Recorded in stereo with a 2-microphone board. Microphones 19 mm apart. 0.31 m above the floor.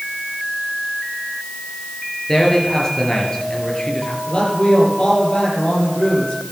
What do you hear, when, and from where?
2.3 s a man speaking: 25° left (ahead or behind), 5 m
4.3 s a man speaking: 60° left (ahead or behind), 9 m